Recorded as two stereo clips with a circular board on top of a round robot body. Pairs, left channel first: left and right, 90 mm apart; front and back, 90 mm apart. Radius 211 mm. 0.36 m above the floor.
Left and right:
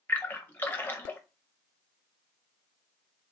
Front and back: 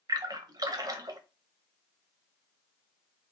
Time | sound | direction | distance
0.1 | a splash | 155° left | 0.8 m